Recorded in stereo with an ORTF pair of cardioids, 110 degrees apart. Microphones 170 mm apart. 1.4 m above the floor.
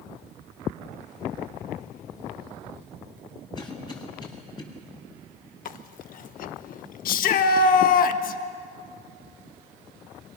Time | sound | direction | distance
3.5 | a cough | 25° left | 8 m
5.7 | chewing | 55° left | 1.1 m
7.0 | a shout | 55° left | 1.6 m